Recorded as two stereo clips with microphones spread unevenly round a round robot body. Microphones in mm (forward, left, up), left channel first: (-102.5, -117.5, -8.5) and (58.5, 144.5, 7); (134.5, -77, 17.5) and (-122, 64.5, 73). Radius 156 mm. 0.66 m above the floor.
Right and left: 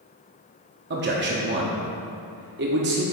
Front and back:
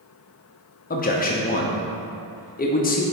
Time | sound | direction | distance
0.9 | a man speaking | 10° left | 0.9 m